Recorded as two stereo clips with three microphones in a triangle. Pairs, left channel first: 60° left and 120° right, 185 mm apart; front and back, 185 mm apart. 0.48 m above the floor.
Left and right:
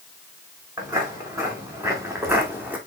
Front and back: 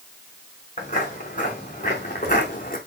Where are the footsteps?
45° right, 4.5 m; by 2.8 s 40° right, 1.8 m.